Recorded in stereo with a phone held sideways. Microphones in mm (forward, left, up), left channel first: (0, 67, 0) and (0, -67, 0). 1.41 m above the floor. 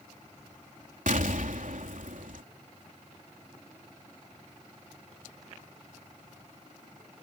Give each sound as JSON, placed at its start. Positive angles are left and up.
{"t": 1.1, "sound": "an explosion", "side_deg": -75}